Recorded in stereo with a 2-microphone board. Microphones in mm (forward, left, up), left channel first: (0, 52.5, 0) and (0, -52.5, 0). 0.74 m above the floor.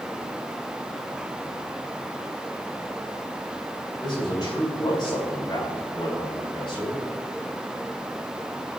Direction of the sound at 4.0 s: 45° left (ahead or behind).